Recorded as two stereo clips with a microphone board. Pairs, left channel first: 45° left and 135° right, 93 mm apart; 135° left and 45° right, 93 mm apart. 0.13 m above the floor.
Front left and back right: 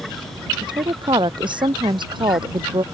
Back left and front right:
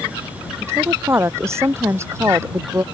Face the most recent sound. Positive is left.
turn(degrees=-105)